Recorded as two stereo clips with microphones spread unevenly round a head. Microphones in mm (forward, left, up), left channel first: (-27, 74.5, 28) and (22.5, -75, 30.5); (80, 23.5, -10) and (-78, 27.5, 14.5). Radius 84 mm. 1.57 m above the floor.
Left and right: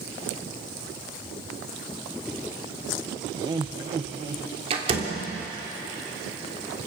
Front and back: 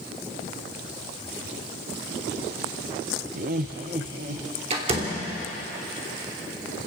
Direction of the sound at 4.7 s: 125° right.